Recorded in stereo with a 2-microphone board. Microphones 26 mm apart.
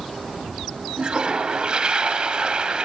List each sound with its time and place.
1.0 s a toilet flushing: 35° right (ahead or behind), 1.6 m